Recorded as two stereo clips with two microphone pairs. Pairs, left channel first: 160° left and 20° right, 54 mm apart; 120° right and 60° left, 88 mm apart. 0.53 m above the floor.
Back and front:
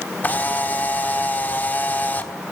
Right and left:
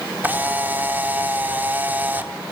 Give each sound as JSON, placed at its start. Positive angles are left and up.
{"t": 0.2, "sound": "a camera shutter", "azimuth_deg": 120, "distance_m": 1.3}